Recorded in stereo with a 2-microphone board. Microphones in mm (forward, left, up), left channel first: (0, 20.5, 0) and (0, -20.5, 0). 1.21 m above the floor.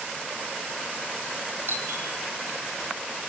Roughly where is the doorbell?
Right.